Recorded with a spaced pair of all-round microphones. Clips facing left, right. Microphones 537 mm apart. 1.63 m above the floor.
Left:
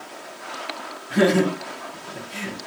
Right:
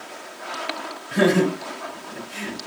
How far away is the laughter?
About 3 m.